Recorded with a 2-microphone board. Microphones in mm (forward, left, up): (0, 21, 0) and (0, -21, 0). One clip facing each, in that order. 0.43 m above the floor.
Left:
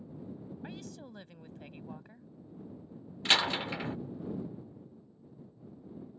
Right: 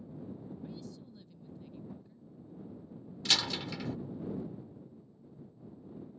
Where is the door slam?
30° left (ahead or behind).